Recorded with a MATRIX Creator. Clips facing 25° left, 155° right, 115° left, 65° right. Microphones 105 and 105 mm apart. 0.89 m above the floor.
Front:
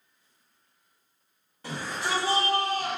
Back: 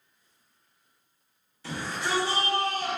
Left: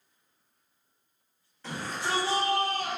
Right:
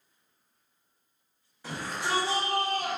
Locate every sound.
1.6 s a shout: 10° left, 1.5 m; by 3.0 s 30° right, 1.1 m